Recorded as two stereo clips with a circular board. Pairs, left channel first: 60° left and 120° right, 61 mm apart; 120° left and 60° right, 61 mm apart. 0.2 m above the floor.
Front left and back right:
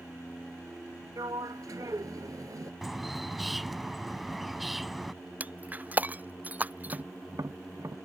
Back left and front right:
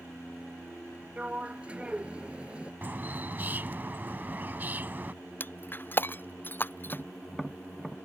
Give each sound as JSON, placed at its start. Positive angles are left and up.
{"t": 1.2, "sound": "a sliding door", "azimuth_deg": -130}
{"t": 2.8, "sound": "a bird", "azimuth_deg": -35}
{"t": 5.4, "sound": "breaking glass", "azimuth_deg": 175}
{"t": 6.9, "sound": "tapping", "azimuth_deg": -150}